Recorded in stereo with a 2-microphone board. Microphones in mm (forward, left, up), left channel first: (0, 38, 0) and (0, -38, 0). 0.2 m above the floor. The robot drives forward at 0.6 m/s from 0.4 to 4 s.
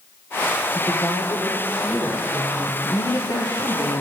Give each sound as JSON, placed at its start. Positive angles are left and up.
{"t": 0.8, "sound": "a woman speaking", "side_deg": 50, "distance_m": 5.5}